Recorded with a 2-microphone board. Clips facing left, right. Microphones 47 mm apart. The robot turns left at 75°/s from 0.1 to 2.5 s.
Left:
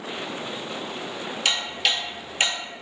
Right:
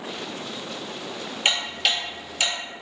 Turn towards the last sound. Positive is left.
turn(degrees=40)  # may be behind; listen again after turning